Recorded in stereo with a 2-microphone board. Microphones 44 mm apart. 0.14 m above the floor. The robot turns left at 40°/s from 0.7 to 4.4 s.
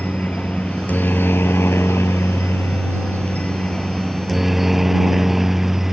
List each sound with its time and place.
0.0 s a helicopter: 140° left; by 5.9 s 5° right